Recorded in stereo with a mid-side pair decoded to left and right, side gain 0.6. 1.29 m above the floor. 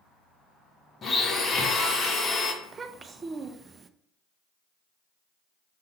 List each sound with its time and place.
1.0 s a blender: 30° left, 1.5 m
2.6 s a child speaking: 30° right, 0.7 m